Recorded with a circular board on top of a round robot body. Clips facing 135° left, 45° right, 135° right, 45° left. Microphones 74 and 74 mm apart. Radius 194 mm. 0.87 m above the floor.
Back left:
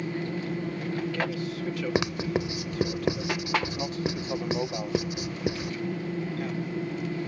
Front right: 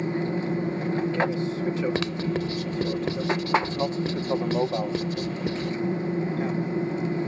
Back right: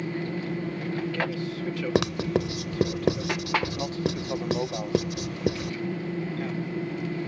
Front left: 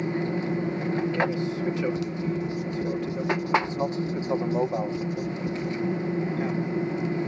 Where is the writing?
150° right.